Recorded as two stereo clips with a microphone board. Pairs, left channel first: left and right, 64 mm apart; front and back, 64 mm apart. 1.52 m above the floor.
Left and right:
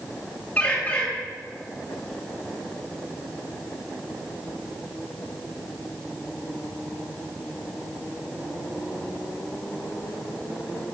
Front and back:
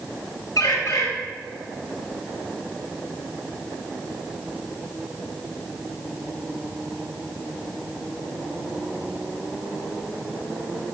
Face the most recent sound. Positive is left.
turn(degrees=25)